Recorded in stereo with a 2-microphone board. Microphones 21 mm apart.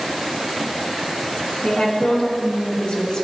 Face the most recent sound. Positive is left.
turn(degrees=40)  # may be behind; listen again after turning